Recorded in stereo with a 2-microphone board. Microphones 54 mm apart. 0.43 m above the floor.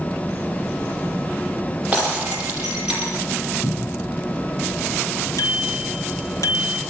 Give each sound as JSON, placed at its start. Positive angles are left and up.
{"t": 1.9, "sound": "breaking glass", "side_deg": -20, "distance_m": 5.5}
{"t": 3.6, "sound": "a cupboard door", "side_deg": 90, "distance_m": 6.5}
{"t": 5.4, "sound": "a bicycle bell", "side_deg": 70, "distance_m": 3.5}